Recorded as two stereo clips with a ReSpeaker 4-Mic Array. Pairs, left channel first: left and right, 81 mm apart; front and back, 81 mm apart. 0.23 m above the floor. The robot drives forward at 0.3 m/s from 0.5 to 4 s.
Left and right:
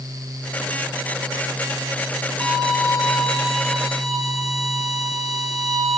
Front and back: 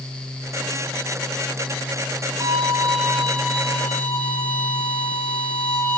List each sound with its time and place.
2.4 s a violin: straight behind, 1.9 m